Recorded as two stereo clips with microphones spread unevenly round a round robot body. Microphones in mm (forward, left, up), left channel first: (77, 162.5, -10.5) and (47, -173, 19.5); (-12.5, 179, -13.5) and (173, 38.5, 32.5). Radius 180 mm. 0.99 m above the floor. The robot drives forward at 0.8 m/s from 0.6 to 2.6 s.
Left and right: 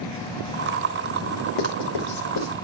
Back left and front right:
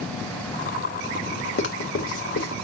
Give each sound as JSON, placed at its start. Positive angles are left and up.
{"t": 1.6, "sound": "writing", "azimuth_deg": 115, "distance_m": 2.5}